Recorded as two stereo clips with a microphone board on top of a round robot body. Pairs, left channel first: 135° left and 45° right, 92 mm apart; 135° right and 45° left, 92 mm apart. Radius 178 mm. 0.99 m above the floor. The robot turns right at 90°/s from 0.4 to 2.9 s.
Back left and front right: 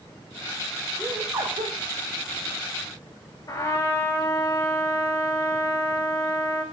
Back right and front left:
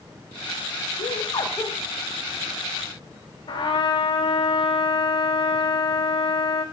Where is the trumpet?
170° right, 5 m.